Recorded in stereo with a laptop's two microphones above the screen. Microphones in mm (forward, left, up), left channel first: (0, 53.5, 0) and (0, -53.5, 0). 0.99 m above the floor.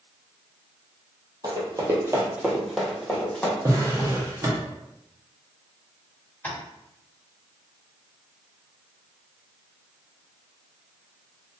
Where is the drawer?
35° right (ahead or behind), 0.8 m.